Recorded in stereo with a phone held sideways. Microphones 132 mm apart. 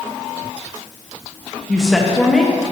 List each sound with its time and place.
1.7 s a woman speaking: 5° left (ahead or behind), 1.2 m